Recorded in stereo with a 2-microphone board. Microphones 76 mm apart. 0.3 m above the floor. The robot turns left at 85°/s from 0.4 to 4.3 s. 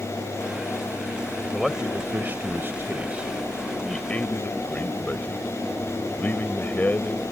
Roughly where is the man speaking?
Ahead.